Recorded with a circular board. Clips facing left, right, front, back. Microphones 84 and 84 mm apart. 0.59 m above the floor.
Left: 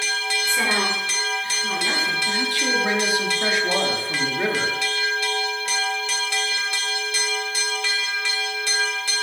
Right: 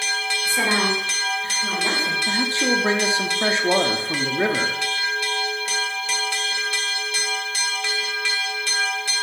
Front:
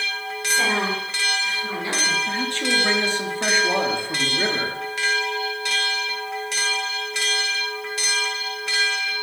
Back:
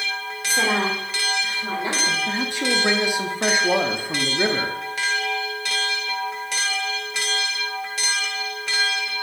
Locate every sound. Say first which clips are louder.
0.5 s a woman speaking: right 2 dB, back 1 dB; 175° right, 2 m; by 2.2 s 125° right, 2.5 m
2.3 s a man speaking: right 2 dB, even; 115° right, 0.7 m